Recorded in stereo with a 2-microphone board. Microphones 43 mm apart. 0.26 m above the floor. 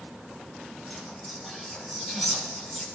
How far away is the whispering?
About 6.5 m.